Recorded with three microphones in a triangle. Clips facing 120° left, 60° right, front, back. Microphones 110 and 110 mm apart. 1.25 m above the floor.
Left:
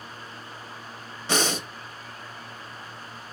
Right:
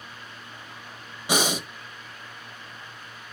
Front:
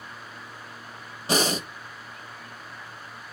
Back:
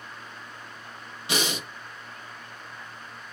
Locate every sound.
1.3 s breathing: 10° left, 0.6 m